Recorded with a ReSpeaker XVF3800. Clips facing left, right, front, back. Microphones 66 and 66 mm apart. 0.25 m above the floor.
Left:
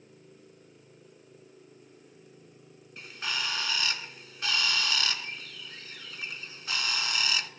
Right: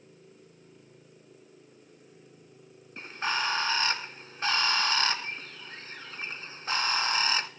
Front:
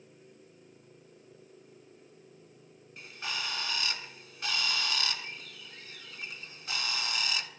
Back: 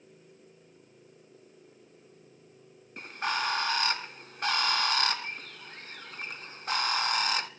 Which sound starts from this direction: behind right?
A bird, at 3.0 s.